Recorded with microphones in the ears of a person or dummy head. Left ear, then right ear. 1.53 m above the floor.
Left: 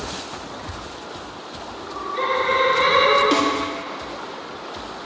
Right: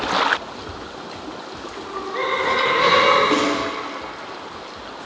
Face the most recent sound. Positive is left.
turn(degrees=25)  # may be behind; listen again after turning